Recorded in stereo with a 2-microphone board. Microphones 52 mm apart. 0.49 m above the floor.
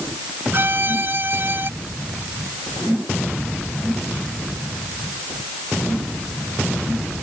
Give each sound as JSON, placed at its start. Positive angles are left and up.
{"t": 0.5, "sound": "a violin", "side_deg": -45}